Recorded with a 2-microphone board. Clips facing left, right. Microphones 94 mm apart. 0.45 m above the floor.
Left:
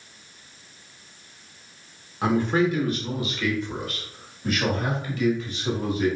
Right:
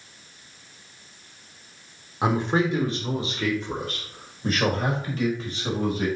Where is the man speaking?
20° right (ahead or behind), 1.2 m; by 6.1 s 40° right (ahead or behind), 2.5 m.